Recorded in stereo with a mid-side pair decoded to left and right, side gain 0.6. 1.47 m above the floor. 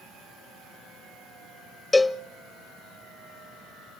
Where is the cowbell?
15° left, 0.6 m.